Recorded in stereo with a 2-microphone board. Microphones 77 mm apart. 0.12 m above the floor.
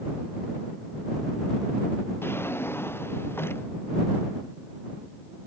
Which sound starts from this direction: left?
A drawer, at 2.2 s.